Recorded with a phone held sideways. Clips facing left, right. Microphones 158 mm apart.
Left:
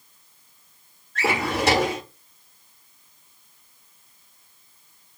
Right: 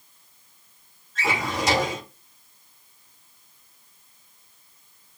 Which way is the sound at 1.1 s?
65° left (ahead or behind).